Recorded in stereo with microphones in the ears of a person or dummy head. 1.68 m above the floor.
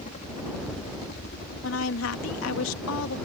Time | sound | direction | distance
0.0 | a helicopter | 40° left (ahead or behind) | ?
1.6 | a woman speaking | 75° left (ahead or behind) | ?